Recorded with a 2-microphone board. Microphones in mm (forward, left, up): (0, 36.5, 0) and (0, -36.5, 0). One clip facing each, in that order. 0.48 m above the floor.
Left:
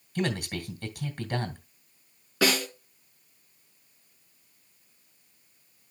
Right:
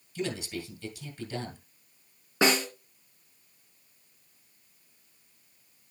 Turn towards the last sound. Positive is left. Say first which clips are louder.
# right 1 dB
turn(degrees=-25)  # may be behind; listen again after turning